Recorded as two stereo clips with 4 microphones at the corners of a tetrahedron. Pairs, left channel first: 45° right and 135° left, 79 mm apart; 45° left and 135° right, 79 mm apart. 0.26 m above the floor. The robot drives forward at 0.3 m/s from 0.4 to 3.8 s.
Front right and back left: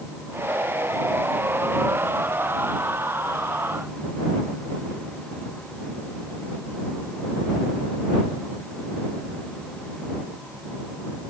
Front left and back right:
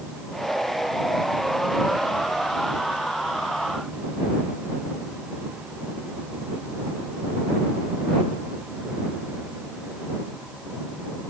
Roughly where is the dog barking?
No dog barking in this recording.